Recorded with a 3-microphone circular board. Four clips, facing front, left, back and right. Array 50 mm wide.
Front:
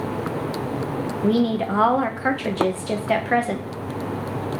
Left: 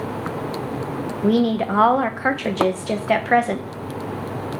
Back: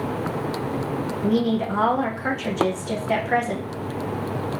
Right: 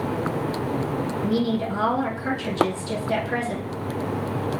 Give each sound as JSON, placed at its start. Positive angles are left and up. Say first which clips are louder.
{"t": 1.2, "sound": "a woman speaking", "louder": "left 7 dB, front 2 dB", "azimuth_deg": 70, "distance_m": 0.6}